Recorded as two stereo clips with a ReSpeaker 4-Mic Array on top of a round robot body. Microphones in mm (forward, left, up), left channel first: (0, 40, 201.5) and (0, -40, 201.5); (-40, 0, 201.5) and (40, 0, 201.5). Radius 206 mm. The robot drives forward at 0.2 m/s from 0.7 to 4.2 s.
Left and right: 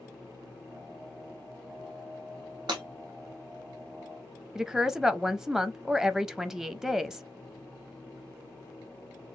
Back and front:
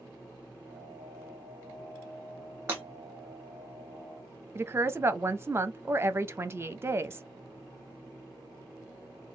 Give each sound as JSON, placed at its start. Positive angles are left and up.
{"t": 2.7, "sound": "breaking glass", "azimuth_deg": -65, "distance_m": 0.8}
{"t": 4.5, "sound": "a woman speaking", "azimuth_deg": -10, "distance_m": 0.7}